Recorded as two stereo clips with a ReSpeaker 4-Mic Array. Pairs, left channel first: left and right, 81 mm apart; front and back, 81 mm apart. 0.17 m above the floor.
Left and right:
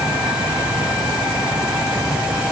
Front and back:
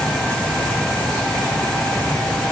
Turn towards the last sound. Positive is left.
No sound to turn to.